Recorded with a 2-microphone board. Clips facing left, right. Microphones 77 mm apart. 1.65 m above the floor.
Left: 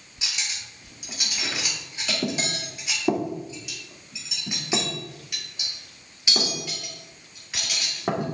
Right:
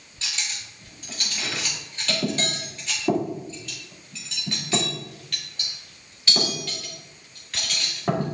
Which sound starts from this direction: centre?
Cutlery clinking, at 0.2 s.